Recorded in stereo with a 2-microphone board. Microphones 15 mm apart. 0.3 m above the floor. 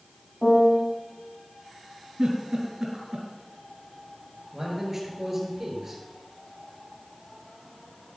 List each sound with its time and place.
0.4 s a piano: 55° left (ahead or behind), 2.5 m
2.2 s a giggle: 65° right (ahead or behind), 3 m
4.5 s a man speaking: 20° right (ahead or behind), 4.5 m